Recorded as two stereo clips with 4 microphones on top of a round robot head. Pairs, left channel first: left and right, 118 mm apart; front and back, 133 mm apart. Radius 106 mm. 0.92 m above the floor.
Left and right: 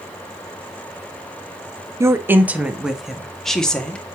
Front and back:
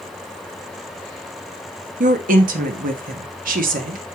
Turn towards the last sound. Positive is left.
turn(degrees=170)